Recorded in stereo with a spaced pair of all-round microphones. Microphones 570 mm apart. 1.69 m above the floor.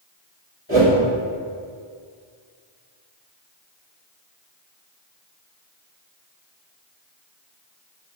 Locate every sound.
0.7 s a whoosh: 20° left (ahead or behind), 2.5 m